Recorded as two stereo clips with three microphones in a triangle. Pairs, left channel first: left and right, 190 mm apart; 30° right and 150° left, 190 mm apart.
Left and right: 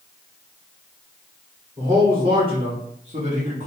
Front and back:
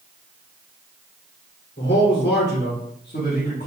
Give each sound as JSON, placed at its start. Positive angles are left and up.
{"t": 1.8, "sound": "a man speaking", "azimuth_deg": -25, "distance_m": 1.7}